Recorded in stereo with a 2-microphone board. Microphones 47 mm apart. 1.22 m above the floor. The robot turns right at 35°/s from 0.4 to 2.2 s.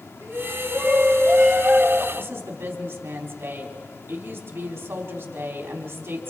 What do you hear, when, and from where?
0.2 s a shout: 95° right, 8 m; by 2.0 s 35° right, 8 m
2.1 s a woman speaking: 60° right (ahead or behind), 3.5 m; by 6.3 s 65° right (ahead or behind), 3.5 m